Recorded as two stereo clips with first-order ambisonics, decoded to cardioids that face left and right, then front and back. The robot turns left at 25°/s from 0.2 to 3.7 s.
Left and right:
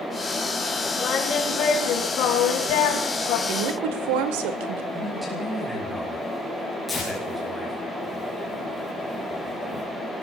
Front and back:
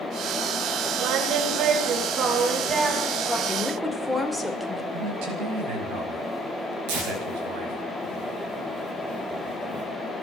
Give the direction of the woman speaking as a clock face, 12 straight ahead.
3 o'clock.